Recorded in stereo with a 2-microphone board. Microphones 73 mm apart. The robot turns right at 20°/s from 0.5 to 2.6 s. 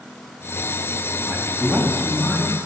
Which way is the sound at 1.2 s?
40° right (ahead or behind).